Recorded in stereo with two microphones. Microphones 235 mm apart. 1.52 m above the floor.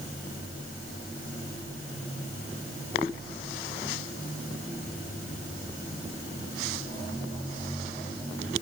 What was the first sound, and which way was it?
Only background noise.